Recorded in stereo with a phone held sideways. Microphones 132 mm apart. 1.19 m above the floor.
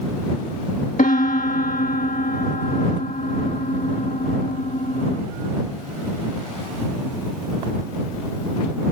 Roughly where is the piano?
Left.